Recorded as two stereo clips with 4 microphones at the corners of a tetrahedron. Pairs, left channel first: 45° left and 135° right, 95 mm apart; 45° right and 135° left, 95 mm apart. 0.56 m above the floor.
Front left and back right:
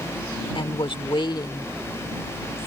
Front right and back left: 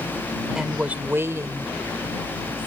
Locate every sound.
0.6 s a woman speaking: 50° left; by 2.7 s 110° left